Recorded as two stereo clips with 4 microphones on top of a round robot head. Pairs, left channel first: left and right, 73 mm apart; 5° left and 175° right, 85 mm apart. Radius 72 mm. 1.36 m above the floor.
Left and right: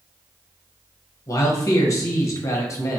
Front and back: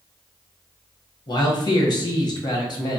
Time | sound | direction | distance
1.3 | a man speaking | 45° left | 1.1 m